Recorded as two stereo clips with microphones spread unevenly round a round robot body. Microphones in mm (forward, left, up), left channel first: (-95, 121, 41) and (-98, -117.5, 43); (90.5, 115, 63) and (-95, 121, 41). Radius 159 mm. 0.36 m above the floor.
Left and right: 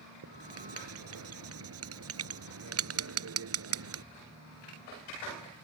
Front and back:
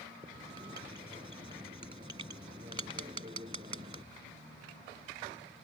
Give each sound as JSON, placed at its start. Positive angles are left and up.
{"t": 0.2, "sound": "writing", "azimuth_deg": -110}